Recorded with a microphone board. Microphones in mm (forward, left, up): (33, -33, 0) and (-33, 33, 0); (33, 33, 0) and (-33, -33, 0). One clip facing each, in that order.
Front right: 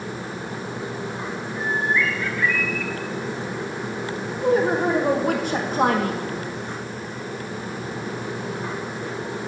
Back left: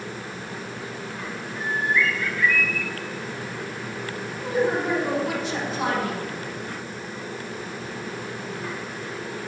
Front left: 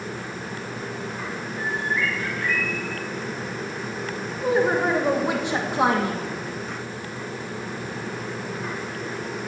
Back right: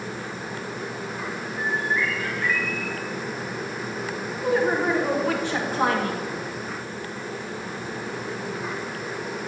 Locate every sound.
1.6 s a bird: 45° left, 3.5 m
4.4 s a woman speaking: 25° right, 1.4 m